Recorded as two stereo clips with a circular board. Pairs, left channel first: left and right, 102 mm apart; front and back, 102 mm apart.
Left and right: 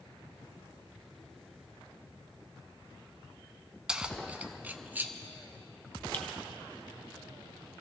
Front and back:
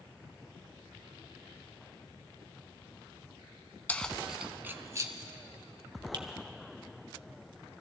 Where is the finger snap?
160° left, 1.5 m.